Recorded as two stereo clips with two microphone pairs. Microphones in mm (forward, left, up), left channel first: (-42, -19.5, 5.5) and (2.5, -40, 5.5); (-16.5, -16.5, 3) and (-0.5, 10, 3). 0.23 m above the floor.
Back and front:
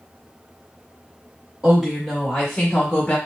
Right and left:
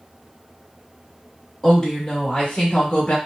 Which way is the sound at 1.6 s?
50° right.